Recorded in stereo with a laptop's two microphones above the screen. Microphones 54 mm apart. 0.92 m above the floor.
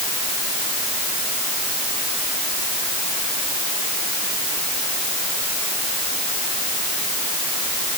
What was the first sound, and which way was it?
Only background noise.